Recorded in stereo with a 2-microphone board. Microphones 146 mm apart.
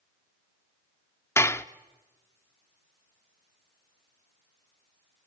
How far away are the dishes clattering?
About 0.7 m.